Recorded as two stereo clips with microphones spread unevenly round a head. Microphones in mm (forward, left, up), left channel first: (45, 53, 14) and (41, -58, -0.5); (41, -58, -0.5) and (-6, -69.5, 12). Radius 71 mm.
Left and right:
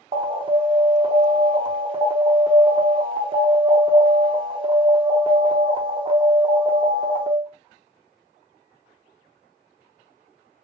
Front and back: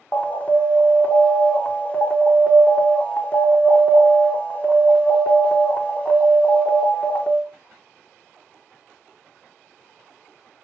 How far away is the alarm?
About 1.0 m.